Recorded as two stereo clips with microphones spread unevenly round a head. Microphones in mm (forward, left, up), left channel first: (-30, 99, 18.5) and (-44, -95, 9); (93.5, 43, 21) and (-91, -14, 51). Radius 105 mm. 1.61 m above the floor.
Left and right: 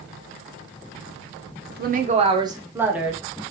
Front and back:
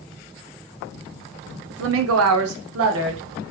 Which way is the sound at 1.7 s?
125° right.